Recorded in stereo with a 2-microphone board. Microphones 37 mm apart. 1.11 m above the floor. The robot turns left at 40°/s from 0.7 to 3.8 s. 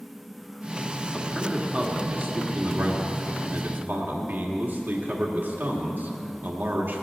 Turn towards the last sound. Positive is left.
turn(degrees=-120)